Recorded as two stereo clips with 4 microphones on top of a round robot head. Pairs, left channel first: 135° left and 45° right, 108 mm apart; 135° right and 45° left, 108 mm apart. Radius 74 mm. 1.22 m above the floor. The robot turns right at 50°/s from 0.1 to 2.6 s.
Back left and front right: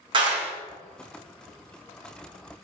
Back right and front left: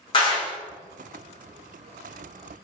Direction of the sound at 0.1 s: 90° right.